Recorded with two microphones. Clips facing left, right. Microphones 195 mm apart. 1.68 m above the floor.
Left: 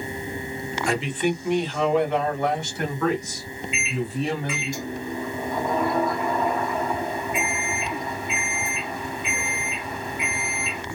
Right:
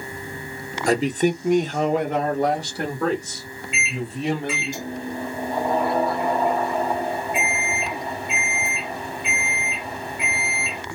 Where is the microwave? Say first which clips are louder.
Left 2 dB; 30° right (ahead or behind), 2 m.